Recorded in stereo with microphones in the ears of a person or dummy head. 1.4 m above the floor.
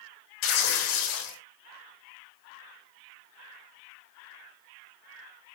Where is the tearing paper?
75° left (ahead or behind), 3 m.